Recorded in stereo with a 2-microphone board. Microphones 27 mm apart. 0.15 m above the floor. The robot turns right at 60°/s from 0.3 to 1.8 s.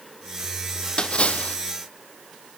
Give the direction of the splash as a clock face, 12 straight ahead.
11 o'clock.